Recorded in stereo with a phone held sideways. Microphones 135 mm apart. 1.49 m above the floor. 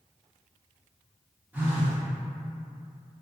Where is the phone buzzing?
10° right (ahead or behind), 0.7 m.